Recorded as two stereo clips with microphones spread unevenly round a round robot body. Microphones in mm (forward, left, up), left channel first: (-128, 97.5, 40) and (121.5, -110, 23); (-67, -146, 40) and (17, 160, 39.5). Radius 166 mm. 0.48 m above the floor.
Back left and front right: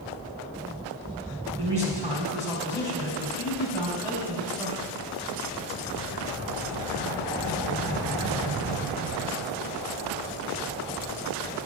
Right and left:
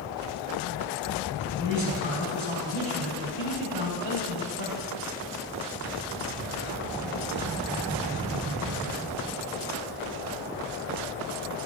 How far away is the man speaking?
About 3.5 m.